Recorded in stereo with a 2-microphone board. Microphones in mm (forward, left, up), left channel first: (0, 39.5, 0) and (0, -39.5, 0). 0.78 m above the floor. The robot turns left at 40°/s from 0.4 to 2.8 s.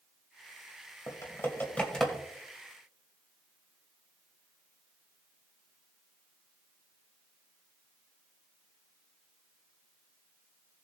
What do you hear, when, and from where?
1.1 s typing on a keyboard: 45° left (ahead or behind), 2 m; by 2.2 s centre (ahead or behind), 2 m